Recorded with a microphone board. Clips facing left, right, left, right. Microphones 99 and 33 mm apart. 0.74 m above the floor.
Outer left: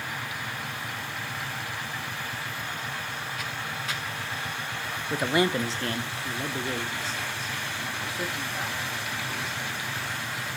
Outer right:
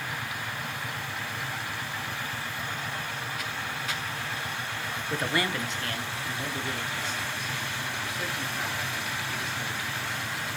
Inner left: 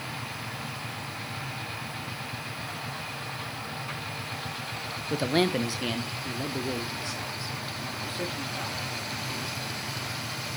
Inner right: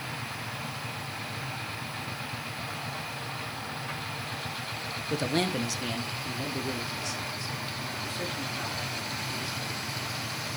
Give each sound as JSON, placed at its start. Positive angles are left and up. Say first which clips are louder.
{"t": 5.1, "sound": "a man speaking", "louder": "outer left 5 dB, inner left 3 dB", "side_deg": 10, "distance_m": 0.7}